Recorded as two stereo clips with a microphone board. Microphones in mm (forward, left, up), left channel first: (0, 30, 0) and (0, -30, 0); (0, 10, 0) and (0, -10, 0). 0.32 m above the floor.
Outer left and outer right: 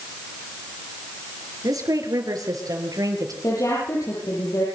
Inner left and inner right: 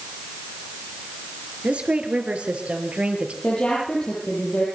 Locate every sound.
1.6 s a woman speaking: 80° right, 6 m; by 3.3 s 75° right (ahead or behind), 6.5 m
3.4 s a woman speaking: 70° left (ahead or behind), 10 m